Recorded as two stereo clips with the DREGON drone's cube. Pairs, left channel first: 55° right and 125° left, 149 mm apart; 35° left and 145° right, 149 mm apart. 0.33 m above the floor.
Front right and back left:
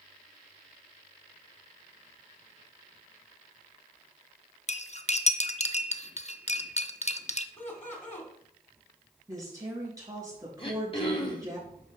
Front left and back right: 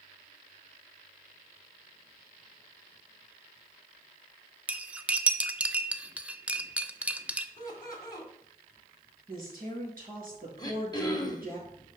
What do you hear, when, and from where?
4.7 s cutlery clinking: 65° right, 0.6 m
7.6 s laughter: 30° right, 2.0 m
9.3 s a woman speaking: 170° right, 4.5 m
10.6 s throat clearing: 20° right, 1.5 m